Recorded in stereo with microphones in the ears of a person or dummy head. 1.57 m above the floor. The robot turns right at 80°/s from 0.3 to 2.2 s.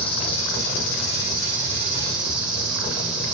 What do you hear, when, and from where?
0.0 s an insect: 40° left, 3 m; by 3.4 s 170° right, 3 m